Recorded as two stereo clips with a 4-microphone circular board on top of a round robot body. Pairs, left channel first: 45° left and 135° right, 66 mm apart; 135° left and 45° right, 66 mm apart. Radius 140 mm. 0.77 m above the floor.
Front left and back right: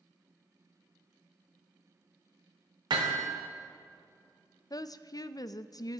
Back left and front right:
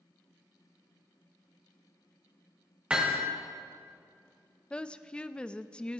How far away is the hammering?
About 1.2 m.